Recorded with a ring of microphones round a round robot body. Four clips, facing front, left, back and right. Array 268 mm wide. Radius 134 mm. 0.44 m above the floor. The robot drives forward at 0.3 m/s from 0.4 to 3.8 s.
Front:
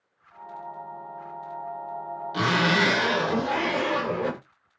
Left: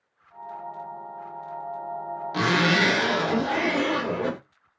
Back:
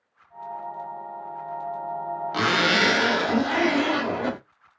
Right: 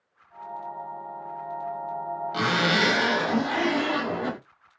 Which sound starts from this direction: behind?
A zipper, at 2.3 s.